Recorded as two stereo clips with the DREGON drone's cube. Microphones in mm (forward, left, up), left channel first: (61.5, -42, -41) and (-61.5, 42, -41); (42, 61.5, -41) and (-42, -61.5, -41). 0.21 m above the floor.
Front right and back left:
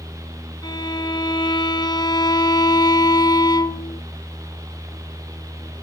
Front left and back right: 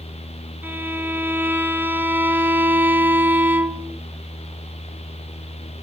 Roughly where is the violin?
Ahead right.